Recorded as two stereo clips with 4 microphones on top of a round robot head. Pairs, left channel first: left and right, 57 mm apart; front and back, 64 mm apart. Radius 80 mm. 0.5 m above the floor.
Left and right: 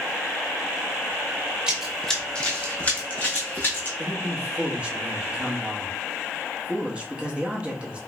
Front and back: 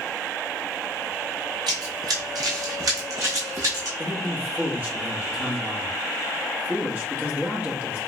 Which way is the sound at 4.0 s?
145° right.